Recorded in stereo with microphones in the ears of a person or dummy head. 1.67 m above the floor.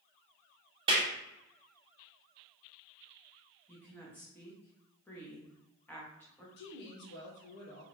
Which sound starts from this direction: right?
A clap, at 0.9 s.